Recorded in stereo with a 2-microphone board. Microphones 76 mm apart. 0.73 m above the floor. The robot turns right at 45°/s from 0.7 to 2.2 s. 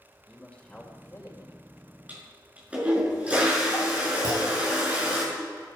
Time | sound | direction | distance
0.3 | a man speaking | 10° left | 3 m
2.1 | a toilet flushing | 20° right (ahead or behind) | 6.5 m
4.2 | a clunk | 45° right (ahead or behind) | 6.5 m